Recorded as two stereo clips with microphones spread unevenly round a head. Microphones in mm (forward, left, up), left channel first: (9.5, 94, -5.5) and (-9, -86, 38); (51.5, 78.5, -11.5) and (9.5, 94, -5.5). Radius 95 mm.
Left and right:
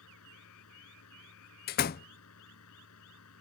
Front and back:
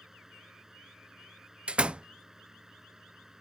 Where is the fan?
80° left.